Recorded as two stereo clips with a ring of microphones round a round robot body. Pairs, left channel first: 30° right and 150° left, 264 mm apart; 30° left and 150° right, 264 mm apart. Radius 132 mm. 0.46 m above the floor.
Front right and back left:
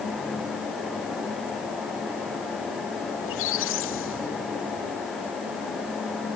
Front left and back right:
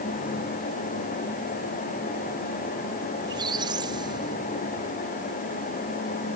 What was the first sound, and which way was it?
A squeak, 75° right.